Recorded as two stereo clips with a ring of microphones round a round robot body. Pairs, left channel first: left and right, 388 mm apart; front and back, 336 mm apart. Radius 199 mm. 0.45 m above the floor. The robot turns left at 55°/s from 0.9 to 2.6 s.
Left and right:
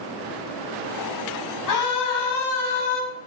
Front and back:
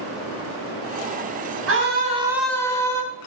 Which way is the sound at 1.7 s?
135° left.